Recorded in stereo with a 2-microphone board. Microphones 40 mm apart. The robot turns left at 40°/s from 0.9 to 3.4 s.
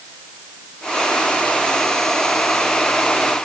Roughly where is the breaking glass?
I don't hear breaking glass.